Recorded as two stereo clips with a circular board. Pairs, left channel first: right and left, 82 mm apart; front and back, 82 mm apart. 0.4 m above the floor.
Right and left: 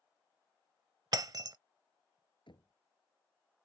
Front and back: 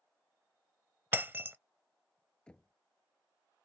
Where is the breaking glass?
120° left.